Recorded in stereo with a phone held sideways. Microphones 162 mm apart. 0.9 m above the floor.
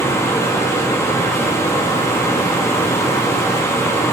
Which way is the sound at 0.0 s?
15° left (ahead or behind).